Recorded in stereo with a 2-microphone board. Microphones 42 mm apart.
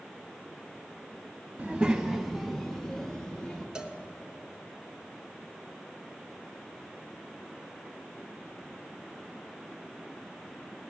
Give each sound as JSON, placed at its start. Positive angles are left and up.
{"t": 1.6, "sound": "a child speaking", "side_deg": -30, "distance_m": 0.7}
{"t": 3.8, "sound": "a cowbell", "side_deg": -20, "distance_m": 0.8}